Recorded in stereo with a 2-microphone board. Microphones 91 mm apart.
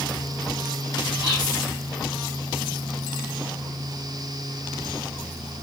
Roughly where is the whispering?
Left.